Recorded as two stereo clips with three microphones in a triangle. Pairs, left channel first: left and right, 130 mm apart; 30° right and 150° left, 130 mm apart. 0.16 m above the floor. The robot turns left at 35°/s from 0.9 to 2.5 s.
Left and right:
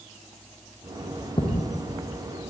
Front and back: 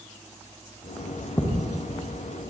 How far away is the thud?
About 5 m.